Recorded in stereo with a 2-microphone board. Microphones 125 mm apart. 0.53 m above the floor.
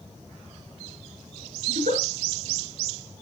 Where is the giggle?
85° right, 6 m.